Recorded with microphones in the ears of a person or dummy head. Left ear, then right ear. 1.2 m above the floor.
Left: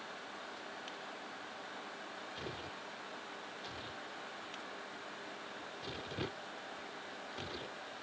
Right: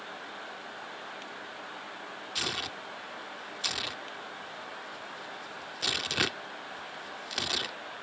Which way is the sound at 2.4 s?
45° right (ahead or behind).